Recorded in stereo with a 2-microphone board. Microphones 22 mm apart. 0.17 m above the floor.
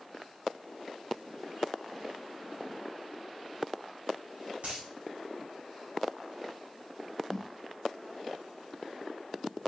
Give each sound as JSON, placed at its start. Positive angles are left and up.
{"t": 4.6, "sound": "a dropped coin", "side_deg": -75, "distance_m": 4.5}
{"t": 7.3, "sound": "a whoosh", "side_deg": 25, "distance_m": 1.8}